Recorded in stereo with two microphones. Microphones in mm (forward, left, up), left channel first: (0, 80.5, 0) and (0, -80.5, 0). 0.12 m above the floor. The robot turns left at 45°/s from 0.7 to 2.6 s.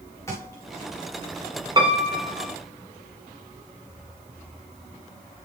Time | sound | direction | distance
0.3 | a thud | 15° left (ahead or behind) | 9 m
1.8 | a piano | 30° right | 5.5 m